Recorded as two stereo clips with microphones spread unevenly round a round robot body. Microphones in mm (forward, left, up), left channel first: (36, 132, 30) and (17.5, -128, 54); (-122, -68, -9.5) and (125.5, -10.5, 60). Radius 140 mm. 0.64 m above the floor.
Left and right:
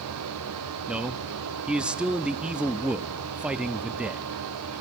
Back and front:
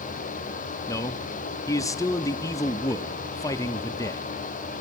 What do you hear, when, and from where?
0.9 s a man speaking: 175° left, 0.7 m